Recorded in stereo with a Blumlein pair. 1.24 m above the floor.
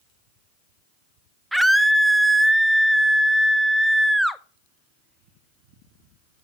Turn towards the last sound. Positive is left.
turn(degrees=0)